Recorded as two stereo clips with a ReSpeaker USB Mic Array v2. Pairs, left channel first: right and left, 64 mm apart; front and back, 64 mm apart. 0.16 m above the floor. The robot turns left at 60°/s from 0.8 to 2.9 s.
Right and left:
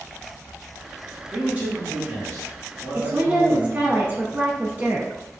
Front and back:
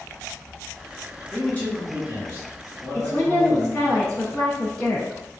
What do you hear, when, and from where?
1.3 s a man speaking: 50° left, 1.8 m; by 3.9 s 45° right, 1.8 m
2.9 s a woman speaking: 60° left, 1.4 m